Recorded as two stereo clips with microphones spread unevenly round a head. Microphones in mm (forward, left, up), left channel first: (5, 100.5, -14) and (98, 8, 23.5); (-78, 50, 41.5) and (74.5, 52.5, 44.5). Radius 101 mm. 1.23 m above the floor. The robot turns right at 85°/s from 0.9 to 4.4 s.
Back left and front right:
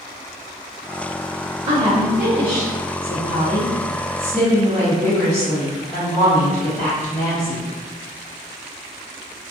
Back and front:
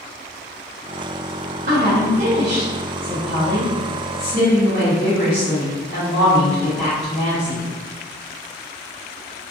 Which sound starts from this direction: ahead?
A woman speaking, at 1.7 s.